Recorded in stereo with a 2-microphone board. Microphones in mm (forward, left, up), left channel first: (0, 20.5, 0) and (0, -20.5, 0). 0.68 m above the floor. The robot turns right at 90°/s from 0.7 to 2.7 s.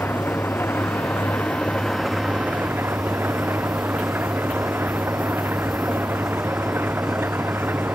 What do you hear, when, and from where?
0.0 s an engine running: 60° left; by 8.0 s 120° right